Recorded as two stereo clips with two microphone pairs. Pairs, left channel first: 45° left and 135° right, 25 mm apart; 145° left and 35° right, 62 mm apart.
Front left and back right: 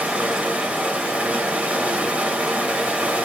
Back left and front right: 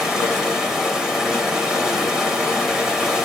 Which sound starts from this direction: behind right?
Running water, at 0.0 s.